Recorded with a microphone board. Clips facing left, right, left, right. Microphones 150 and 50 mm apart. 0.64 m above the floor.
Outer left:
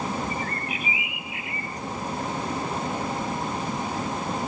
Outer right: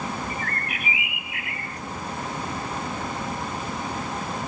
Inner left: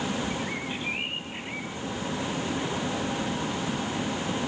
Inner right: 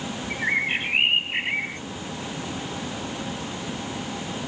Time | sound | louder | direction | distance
0.3 | a bird | outer left 1 dB, inner right 8 dB | 70° right (ahead or behind) | ?